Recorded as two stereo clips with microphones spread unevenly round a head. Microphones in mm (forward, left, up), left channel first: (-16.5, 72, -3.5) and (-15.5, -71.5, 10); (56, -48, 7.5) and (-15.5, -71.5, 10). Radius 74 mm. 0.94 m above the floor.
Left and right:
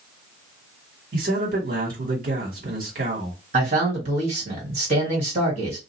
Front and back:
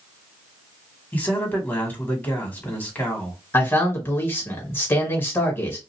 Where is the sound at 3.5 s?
40° right, 1.8 m.